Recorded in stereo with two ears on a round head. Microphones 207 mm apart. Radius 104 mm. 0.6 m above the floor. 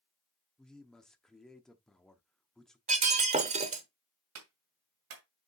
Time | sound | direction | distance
0.6 | a man speaking | 5° left (ahead or behind) | 0.9 m
2.9 | breaking glass | 30° right (ahead or behind) | 1.0 m
4.3 | a clap | 65° right (ahead or behind) | 2 m